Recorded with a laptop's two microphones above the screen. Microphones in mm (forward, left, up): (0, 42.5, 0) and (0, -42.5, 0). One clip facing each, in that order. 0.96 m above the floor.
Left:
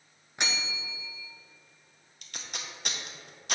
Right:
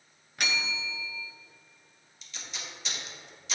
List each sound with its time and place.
0.4 s a bell: 20° left (ahead or behind), 0.6 m
2.2 s tape being pulled: 50° left (ahead or behind), 0.8 m